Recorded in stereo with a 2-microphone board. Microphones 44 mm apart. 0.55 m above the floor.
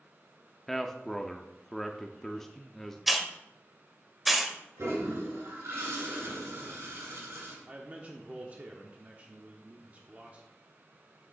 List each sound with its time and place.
0.7 s a man speaking: 10° left (ahead or behind), 0.6 m
3.1 s a hiss: 5° right (ahead or behind), 0.9 m
4.8 s a toilet flushing: 80° right, 3 m
7.7 s a man speaking: 35° right (ahead or behind), 0.9 m